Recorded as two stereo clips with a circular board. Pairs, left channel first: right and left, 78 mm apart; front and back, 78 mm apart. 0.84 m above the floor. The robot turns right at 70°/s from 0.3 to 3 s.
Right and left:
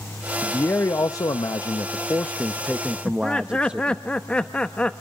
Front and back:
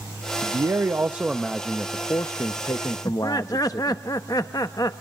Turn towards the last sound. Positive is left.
turn(degrees=-20)